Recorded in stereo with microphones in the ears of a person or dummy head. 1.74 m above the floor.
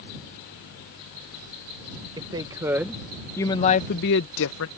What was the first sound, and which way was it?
A woman speaking, 25° right (ahead or behind).